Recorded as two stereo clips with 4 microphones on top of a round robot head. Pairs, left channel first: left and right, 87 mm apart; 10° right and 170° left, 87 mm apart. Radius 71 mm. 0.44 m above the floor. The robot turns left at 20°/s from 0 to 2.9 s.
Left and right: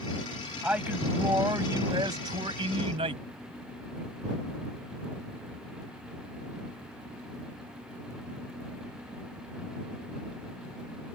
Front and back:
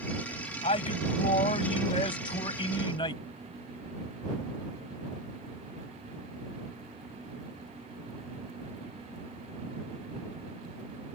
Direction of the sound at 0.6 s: 10° right.